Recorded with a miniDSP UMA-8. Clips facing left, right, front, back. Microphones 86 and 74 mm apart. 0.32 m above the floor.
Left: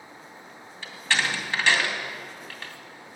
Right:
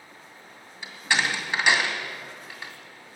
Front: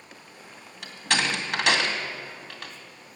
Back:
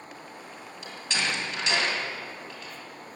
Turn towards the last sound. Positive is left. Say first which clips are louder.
# right 1 dB, front 4 dB
turn(degrees=-15)